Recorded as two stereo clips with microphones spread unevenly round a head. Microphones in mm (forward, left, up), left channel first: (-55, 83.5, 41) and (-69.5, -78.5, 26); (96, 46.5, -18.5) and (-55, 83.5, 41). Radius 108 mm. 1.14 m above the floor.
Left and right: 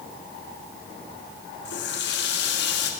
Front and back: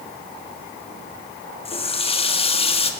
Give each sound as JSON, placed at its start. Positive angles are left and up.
{"t": 1.6, "sound": "a running tap", "azimuth_deg": 45, "distance_m": 1.3}